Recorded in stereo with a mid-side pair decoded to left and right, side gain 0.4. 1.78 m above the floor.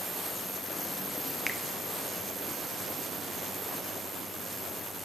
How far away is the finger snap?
About 0.9 m.